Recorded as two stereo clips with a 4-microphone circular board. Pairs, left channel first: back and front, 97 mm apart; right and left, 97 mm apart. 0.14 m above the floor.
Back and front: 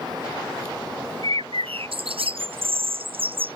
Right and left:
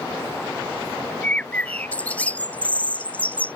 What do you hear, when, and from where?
1.2 s a bird: 15° right